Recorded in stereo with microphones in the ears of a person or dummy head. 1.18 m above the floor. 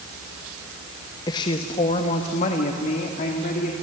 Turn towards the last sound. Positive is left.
turn(degrees=50)  # may be behind; listen again after turning